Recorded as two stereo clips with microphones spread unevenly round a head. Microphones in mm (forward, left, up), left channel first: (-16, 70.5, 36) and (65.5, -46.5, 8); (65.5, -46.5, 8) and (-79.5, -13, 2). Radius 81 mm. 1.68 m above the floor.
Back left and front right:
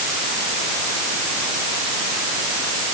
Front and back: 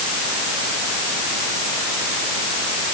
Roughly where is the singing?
No singing in this recording.